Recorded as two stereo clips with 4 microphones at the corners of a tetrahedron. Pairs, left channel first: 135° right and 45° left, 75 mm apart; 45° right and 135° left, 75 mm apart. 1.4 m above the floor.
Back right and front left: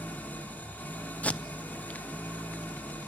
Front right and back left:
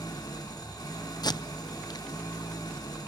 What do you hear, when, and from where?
0.0 s an engine running: 70° right, 3.5 m
1.2 s tape being pulled: 65° right, 0.6 m